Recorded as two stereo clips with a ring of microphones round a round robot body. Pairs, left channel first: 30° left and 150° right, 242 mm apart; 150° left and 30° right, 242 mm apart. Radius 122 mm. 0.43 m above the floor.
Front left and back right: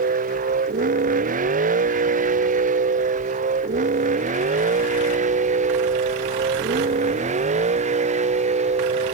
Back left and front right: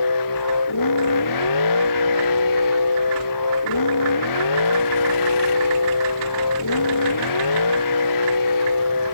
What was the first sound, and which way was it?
A vehicle, 150° left.